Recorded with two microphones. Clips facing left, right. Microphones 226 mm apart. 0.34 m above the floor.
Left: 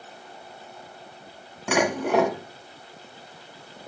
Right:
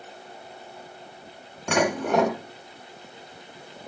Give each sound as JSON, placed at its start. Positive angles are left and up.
{"t": 1.7, "sound": "dishes clattering", "side_deg": 5, "distance_m": 2.0}